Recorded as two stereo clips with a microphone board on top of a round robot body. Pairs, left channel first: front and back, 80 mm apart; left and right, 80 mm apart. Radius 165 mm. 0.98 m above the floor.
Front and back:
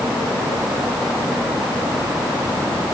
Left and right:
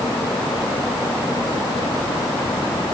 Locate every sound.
Only background noise.